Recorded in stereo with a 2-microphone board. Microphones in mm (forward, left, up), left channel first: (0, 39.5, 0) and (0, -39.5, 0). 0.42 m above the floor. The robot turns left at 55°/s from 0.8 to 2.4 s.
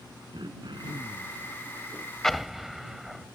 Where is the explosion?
5° left (ahead or behind); by 3.3 s centre (ahead or behind).